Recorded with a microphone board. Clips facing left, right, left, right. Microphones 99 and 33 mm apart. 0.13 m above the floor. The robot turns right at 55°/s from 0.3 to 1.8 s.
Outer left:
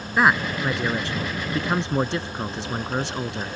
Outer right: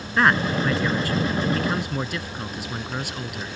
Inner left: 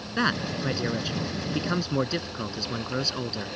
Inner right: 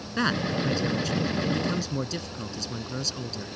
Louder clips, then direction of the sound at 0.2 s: Even, even; 5° left (ahead or behind).